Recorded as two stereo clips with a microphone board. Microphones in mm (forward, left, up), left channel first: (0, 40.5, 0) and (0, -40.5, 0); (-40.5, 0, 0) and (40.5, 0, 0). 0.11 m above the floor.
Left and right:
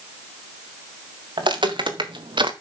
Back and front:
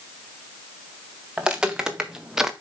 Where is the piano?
No piano in this recording.